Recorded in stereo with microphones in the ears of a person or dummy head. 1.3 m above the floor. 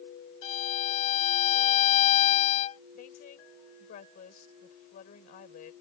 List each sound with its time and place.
0.4 s a violin: 40° left (ahead or behind)
3.0 s a woman speaking: 45° left (ahead or behind)